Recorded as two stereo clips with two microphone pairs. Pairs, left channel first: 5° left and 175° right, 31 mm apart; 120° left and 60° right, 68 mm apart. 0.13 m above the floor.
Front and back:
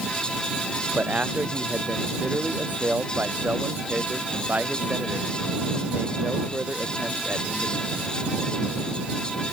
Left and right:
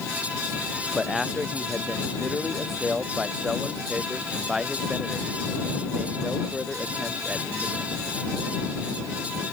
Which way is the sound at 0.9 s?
145° right.